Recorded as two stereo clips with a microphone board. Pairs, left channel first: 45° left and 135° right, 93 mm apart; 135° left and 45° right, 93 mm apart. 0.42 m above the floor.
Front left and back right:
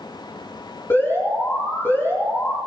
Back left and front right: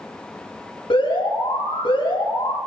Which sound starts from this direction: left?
An alarm, at 0.9 s.